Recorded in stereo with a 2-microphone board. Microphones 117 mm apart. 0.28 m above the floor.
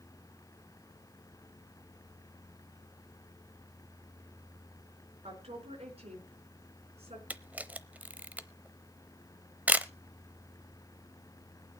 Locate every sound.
5.2 s a woman speaking: 60° right (ahead or behind), 4 m
7.3 s a camera shutter: 15° right (ahead or behind), 0.7 m